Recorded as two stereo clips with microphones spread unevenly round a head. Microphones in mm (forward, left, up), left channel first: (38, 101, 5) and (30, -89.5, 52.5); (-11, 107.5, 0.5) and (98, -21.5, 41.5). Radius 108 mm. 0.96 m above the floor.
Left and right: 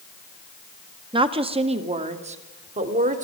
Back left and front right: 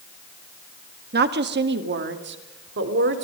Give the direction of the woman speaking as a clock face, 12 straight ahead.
1 o'clock.